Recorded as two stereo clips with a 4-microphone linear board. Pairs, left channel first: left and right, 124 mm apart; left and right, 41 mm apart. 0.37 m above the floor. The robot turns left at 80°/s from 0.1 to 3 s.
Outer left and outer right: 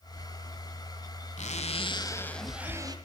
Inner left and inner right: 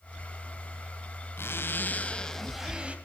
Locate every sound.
1.4 s a zipper: 90° left, 1.3 m; by 3.0 s 40° right, 1.3 m